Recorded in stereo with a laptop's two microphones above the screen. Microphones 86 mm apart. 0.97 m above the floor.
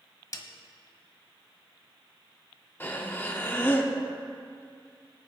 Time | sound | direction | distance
0.3 | a snare drum | 40° left (ahead or behind) | 1.0 m
2.8 | breathing | 25° left (ahead or behind) | 0.7 m